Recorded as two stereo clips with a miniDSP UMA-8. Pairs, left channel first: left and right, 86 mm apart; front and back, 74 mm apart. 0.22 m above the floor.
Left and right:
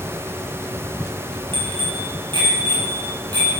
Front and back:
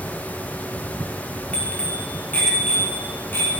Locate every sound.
1.5 s a bicycle bell: 70° right, 4 m; by 3.5 s 60° right, 5 m